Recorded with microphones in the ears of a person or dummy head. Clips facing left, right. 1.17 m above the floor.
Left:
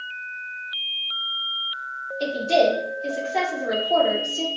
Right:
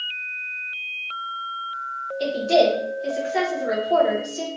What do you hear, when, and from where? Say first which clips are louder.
2.2 s a woman speaking: right 1 dB; 10° right (ahead or behind), 0.9 m